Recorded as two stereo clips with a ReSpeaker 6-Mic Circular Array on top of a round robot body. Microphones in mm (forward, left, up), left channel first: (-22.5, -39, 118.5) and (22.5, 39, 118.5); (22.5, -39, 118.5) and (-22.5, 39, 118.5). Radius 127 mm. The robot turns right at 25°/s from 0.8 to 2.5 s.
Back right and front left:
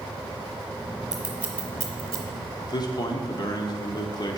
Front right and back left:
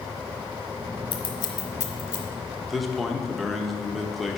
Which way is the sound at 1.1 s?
25° right.